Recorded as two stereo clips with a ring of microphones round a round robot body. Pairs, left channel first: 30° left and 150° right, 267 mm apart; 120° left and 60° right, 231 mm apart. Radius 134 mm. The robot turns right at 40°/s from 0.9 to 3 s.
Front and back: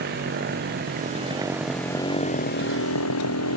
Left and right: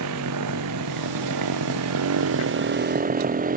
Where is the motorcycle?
95° right; by 3.6 s 5° right.